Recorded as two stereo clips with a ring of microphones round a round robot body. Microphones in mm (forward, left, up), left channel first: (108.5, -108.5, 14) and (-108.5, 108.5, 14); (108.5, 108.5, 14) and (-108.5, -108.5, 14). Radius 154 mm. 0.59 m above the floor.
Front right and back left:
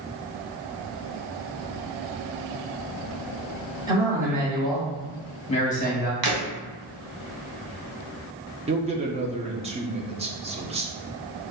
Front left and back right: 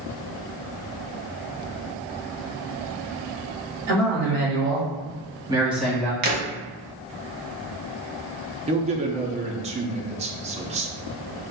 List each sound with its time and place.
3.9 s a man speaking: 150° right, 1.8 m; by 6.1 s 25° right, 1.2 m
6.2 s breaking glass: 165° left, 1.6 m
8.7 s a man speaking: straight behind, 0.6 m